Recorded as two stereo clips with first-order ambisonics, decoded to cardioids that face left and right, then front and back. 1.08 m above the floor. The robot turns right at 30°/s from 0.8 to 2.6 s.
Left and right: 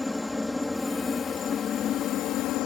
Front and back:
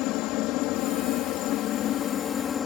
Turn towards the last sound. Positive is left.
turn(degrees=60)